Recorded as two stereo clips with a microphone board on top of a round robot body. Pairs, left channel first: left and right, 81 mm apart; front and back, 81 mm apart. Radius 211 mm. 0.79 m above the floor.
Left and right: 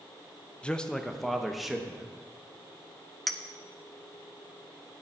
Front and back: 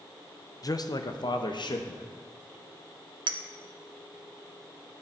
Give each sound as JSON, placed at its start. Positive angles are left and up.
{"t": 0.6, "sound": "a man speaking", "azimuth_deg": 15, "distance_m": 1.0}
{"t": 3.3, "sound": "a clink", "azimuth_deg": 175, "distance_m": 1.0}